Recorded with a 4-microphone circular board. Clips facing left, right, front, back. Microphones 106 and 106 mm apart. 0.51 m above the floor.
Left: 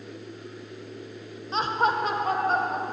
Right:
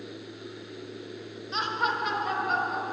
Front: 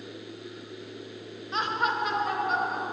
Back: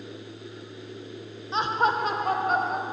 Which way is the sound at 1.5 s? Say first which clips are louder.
Left 5 dB, back 4 dB; 125° left.